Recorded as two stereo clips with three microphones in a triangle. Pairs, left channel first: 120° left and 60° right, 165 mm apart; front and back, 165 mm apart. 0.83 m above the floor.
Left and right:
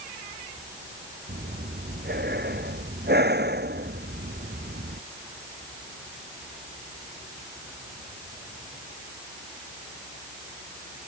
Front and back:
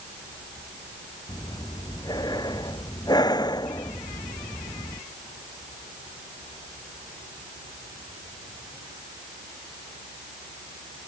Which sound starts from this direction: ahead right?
Breathing, at 1.3 s.